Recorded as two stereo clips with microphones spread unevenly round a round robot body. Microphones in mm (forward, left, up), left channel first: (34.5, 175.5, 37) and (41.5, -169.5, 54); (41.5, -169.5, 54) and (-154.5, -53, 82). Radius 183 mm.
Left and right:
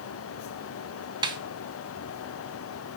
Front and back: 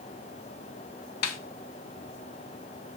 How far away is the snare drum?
About 1.1 m.